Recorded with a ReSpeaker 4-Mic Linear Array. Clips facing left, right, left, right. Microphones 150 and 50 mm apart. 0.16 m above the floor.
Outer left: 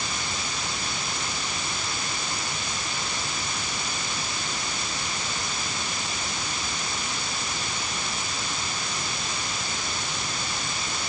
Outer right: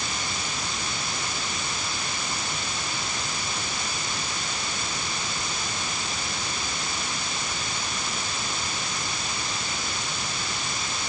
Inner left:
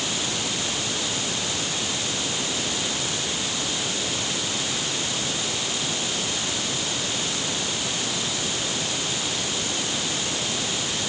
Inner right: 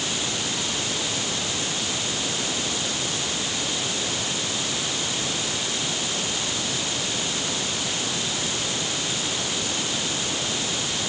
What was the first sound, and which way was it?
Only background noise.